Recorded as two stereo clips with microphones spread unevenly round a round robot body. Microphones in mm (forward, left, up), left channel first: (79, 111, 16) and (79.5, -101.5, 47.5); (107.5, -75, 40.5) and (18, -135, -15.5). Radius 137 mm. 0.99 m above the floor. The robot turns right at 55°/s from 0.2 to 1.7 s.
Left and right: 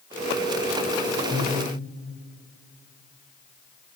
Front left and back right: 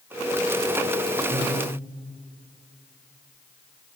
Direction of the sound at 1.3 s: Straight behind.